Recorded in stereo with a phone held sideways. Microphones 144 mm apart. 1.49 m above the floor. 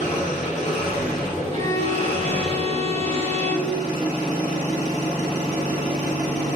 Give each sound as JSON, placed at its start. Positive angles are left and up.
{"t": 0.0, "sound": "an engine running", "side_deg": 55, "distance_m": 1.0}
{"t": 1.5, "sound": "a violin", "side_deg": -50, "distance_m": 0.6}